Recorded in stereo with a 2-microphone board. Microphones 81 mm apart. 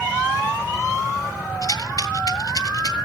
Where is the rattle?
50° left (ahead or behind), 1.8 m.